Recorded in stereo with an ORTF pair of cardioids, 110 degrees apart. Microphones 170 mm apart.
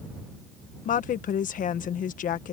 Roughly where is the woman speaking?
Ahead left.